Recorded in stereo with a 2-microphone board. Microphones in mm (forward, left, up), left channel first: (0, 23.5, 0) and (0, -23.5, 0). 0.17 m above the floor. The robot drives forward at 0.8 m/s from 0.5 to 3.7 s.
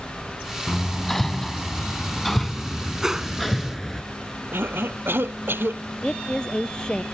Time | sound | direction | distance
0.7 | hammering | 5° left (ahead or behind) | ?
3.0 | a whoosh | 10° right (ahead or behind) | ?
4.5 | a cough | 55° right (ahead or behind) | ?
6.0 | a woman speaking | 20° left (ahead or behind) | ?